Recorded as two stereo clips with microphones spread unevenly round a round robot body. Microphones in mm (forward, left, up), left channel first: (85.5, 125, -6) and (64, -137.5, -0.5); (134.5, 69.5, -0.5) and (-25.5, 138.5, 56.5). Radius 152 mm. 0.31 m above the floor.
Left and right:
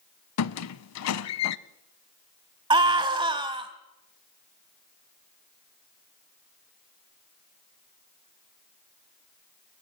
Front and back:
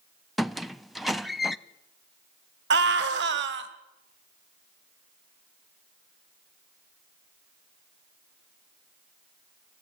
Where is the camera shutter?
No camera shutter in this recording.